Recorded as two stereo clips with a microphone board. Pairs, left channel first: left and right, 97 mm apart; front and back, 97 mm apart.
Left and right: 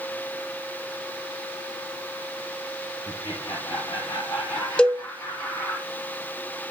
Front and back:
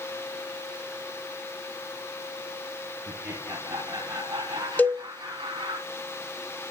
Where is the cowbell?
30° left, 1.3 m.